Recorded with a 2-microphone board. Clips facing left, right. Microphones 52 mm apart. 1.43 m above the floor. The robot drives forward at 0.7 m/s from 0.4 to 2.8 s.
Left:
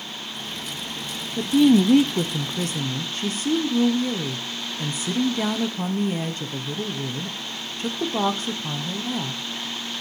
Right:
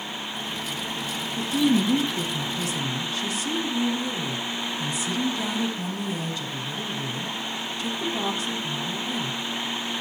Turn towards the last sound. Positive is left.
turn(degrees=40)  # may be behind; listen again after turning